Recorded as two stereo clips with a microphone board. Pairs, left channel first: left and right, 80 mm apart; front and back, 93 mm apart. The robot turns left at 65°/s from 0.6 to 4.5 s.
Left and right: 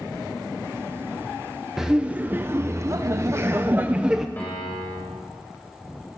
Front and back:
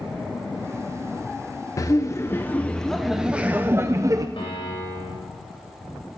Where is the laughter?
10° right, 0.6 m; by 4.3 s 170° right, 0.6 m.